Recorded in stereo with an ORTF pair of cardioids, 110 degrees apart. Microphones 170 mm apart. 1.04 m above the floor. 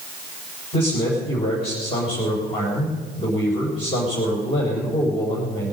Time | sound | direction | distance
0.7 | a man speaking | 35° left | 4 m